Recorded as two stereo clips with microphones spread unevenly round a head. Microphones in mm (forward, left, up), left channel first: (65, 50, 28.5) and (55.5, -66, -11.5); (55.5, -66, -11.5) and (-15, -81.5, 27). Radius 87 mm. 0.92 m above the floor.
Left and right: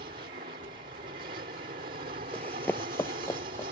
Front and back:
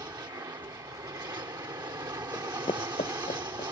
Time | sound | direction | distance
0.0 | an aircraft | 130° right | ?
2.3 | running footsteps | 90° left | ?